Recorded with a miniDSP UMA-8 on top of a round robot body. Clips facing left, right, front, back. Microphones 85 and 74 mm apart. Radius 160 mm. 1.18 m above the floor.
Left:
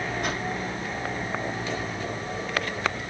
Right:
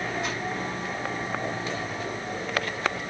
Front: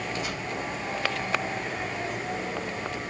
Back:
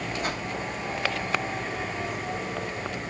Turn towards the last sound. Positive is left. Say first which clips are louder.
# left 1 dB, back 3 dB
turn(degrees=130)